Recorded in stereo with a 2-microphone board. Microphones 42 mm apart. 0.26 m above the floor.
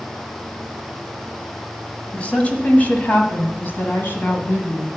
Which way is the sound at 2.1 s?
30° left (ahead or behind).